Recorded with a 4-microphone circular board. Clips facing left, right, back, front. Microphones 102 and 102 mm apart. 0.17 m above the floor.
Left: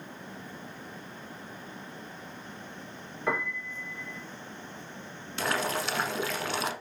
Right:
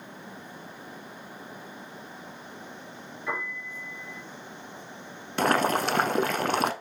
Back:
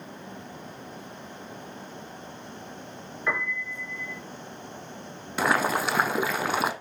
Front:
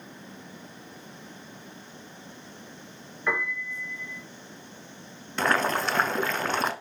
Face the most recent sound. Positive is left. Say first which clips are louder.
# right 7 dB, back 1 dB
turn(degrees=-100)